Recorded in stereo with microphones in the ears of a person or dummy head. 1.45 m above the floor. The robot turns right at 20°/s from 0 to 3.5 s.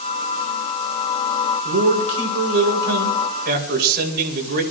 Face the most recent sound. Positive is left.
turn(degrees=-50)